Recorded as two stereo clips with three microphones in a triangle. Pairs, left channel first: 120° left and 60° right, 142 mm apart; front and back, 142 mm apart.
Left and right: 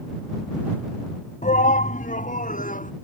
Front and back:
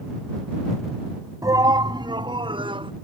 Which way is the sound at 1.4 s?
120° left.